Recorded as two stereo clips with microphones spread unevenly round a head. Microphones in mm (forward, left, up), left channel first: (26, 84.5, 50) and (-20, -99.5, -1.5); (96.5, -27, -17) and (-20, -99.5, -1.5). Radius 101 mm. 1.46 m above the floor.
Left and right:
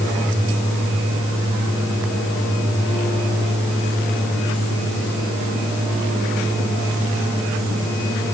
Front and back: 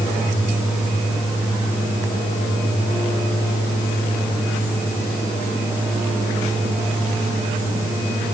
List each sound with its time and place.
Only background noise.